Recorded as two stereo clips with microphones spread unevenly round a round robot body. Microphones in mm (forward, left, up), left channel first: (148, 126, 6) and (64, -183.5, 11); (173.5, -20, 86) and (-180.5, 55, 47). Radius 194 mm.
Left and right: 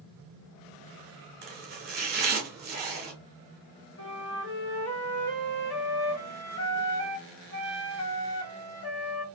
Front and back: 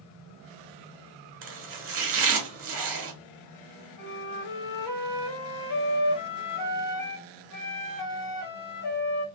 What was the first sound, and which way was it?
Chopping, 160° right.